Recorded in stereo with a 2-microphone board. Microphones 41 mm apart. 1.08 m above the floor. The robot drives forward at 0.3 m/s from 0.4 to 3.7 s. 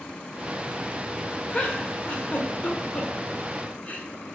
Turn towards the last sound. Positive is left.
turn(degrees=40)  # may be behind; listen again after turning